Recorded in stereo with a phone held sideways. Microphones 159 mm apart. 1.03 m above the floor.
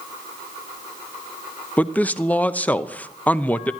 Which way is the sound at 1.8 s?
10° left (ahead or behind).